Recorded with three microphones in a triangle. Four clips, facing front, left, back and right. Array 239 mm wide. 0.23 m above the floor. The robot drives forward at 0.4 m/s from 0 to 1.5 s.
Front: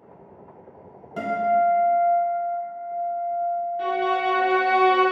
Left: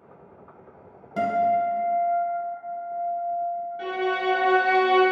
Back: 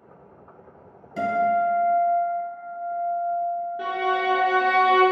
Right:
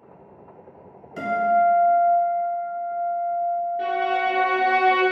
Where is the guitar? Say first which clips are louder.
Right 2 dB, front 1 dB; 65° left, 0.7 m; by 4.1 s 85° left, 0.7 m.